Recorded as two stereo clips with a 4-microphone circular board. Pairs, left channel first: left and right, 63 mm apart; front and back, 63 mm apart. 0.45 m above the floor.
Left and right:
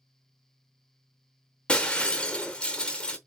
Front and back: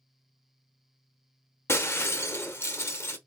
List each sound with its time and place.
1.7 s breaking glass: 25° left, 0.8 m